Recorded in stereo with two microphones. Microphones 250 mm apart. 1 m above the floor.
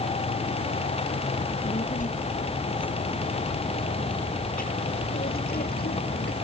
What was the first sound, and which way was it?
A child speaking, 30° left (ahead or behind).